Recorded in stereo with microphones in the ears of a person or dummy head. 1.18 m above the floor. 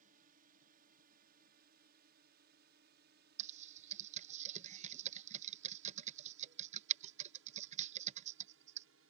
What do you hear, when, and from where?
0.0 s a drone: 45° right (ahead or behind); by 9.1 s 70° right (ahead or behind)
3.4 s typing on a keyboard: 35° right (ahead or behind)